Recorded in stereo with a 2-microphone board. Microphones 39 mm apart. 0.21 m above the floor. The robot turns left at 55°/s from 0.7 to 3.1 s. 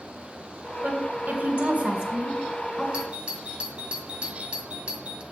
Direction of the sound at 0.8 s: 50° right (ahead or behind).